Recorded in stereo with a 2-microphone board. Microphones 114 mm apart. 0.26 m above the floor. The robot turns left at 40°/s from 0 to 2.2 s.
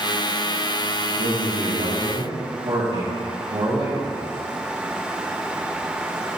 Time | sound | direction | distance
1.2 | a man speaking | 75° right | 3 m